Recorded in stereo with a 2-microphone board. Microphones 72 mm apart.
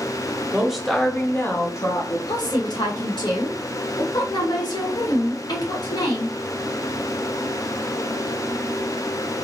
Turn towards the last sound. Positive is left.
turn(degrees=80)